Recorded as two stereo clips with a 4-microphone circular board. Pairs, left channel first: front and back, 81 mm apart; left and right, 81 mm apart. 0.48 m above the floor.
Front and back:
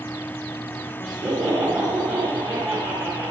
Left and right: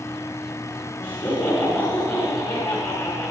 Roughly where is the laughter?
Behind.